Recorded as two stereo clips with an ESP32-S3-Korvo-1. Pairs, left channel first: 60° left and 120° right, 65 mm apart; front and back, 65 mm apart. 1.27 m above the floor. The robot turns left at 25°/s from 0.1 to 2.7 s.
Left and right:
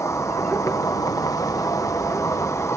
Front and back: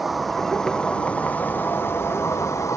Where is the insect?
90° left; by 2.8 s 25° left.